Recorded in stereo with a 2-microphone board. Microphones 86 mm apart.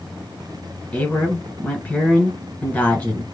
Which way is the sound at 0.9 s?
15° left (ahead or behind).